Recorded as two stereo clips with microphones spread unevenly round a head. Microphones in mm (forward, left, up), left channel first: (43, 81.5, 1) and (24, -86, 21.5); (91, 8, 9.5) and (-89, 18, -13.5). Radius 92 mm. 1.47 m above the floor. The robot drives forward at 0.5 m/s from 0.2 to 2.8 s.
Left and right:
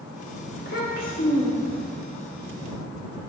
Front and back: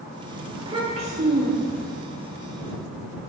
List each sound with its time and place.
0.6 s a child speaking: 110° left, 1.1 m; by 1.9 s 140° left, 1.4 m